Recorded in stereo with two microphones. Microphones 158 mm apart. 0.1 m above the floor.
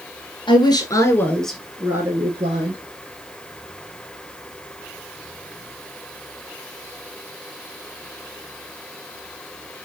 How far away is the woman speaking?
About 1.6 m.